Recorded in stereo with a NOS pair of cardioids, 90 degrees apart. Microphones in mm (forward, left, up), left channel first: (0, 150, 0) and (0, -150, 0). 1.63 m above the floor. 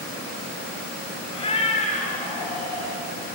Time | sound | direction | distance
1.3 | a cat meowing | 20° left | 3 m